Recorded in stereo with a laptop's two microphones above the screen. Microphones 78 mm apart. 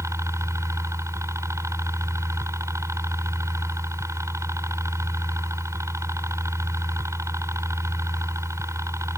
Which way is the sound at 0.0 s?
40° right (ahead or behind).